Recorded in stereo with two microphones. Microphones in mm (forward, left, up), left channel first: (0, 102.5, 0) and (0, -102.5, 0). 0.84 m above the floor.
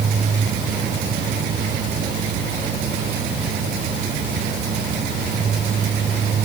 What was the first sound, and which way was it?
Only background noise.